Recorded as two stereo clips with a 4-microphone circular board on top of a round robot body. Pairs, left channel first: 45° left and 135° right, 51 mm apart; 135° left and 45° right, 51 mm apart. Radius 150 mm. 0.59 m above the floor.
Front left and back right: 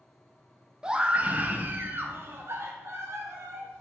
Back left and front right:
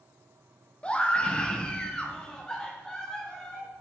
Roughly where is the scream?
Behind.